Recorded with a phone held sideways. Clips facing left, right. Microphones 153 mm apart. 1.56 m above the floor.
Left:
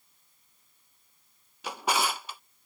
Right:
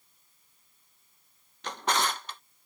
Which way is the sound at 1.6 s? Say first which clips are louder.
Left 1 dB; 10° left (ahead or behind).